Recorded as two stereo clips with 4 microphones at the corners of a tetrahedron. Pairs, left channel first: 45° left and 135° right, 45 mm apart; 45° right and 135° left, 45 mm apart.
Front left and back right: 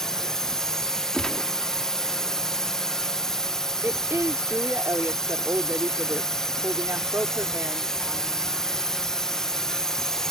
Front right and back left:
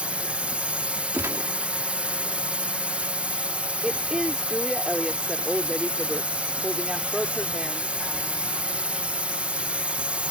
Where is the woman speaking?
145° right.